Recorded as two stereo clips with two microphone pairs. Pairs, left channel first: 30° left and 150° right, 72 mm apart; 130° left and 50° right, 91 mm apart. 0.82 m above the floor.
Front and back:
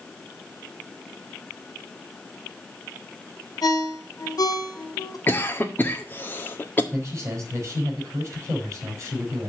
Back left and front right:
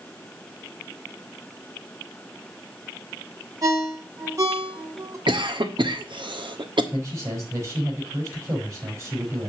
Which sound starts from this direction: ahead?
A ringtone, at 3.6 s.